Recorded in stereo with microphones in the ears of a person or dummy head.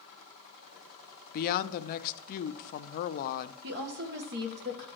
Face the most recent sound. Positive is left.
turn(degrees=-60)  # may be behind; listen again after turning